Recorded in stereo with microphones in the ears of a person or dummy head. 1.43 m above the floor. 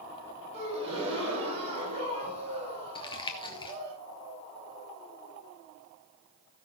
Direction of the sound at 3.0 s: 20° left (ahead or behind).